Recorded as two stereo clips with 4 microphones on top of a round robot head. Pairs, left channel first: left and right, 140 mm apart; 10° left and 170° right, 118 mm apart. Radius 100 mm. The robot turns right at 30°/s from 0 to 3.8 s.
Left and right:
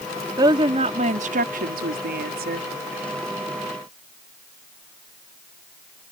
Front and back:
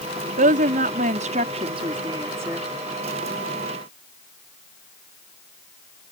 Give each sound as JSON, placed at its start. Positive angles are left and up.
{"t": 0.4, "sound": "a woman speaking", "azimuth_deg": -160}